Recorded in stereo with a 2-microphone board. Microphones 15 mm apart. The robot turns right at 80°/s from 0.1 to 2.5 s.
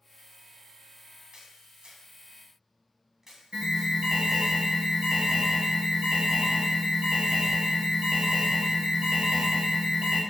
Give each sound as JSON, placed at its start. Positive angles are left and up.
{"t": 1.3, "sound": "a camera shutter", "side_deg": -60, "distance_m": 2.5}
{"t": 3.5, "sound": "an alarm", "side_deg": -60, "distance_m": 4.5}